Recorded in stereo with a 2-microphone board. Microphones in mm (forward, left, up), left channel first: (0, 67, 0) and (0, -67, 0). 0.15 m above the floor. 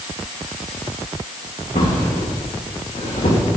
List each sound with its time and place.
1.8 s a drawer: 80° left, 5.5 m